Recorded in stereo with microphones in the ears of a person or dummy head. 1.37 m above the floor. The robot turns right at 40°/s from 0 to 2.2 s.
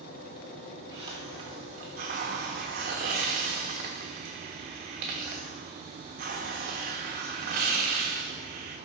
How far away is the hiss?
About 1.2 m.